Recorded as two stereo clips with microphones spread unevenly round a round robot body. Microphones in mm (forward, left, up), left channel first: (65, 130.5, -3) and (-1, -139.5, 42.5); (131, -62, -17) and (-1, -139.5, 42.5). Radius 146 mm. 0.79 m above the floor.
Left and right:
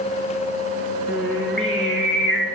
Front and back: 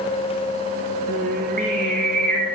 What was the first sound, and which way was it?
Singing, 170° left.